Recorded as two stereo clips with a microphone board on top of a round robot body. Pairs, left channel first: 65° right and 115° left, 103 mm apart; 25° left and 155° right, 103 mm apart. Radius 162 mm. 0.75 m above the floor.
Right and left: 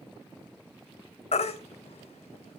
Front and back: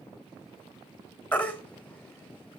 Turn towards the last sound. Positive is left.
turn(degrees=-55)